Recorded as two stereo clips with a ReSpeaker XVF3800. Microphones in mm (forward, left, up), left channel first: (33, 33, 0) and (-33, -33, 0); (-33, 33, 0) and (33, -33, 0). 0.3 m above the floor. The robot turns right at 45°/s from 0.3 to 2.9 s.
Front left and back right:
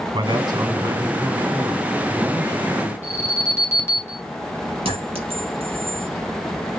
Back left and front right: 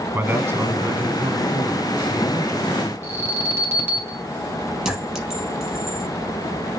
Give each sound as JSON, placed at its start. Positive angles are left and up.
{"t": 0.1, "sound": "a man speaking", "azimuth_deg": -110, "distance_m": 2.0}
{"t": 3.0, "sound": "an alarm", "azimuth_deg": 5, "distance_m": 2.5}
{"t": 4.8, "sound": "a clink", "azimuth_deg": -130, "distance_m": 4.5}